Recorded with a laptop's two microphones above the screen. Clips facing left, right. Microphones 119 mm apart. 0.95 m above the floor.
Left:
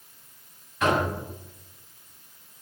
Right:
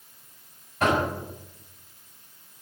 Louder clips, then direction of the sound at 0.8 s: Even; 40° right (ahead or behind).